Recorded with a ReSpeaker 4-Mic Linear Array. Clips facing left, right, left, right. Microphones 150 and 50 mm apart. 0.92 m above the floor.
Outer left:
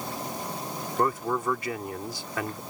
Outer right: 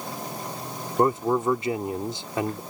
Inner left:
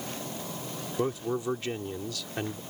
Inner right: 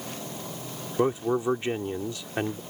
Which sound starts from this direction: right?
A man speaking, at 1.0 s.